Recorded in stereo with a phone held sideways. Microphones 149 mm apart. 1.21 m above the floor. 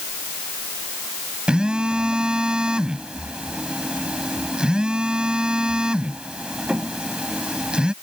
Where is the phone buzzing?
5° right (ahead or behind).